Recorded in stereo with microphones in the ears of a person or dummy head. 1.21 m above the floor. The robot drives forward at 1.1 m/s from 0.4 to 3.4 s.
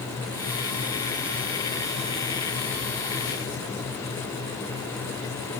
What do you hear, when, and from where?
Only background noise.